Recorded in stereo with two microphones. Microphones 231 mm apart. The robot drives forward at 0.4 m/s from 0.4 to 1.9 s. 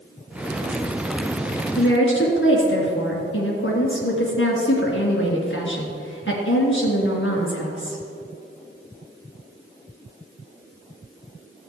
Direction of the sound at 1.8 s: 60° left (ahead or behind).